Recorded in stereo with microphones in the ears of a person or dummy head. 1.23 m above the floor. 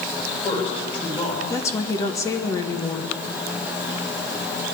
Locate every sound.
0.2 s a man speaking: 35° left (ahead or behind), 5 m
1.5 s a woman speaking: 15° left (ahead or behind), 0.9 m